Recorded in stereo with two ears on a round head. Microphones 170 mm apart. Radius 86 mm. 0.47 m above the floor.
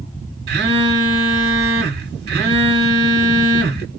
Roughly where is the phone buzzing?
Right.